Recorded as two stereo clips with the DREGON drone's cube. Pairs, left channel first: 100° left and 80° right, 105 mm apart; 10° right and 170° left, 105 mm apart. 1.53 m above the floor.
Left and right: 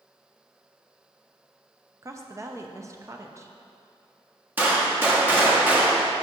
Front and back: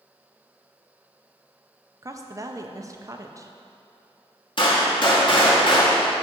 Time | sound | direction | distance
2.0 | a woman speaking | 135° right | 0.6 m
4.6 | a gunshot | 10° right | 1.3 m